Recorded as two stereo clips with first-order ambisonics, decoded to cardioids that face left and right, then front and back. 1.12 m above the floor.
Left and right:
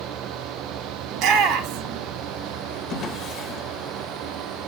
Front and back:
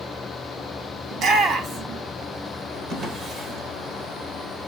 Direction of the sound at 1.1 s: 125° right.